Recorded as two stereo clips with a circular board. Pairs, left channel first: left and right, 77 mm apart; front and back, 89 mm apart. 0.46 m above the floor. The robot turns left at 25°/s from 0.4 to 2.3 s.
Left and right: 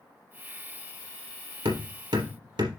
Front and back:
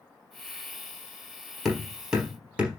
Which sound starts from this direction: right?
Hammering, at 1.6 s.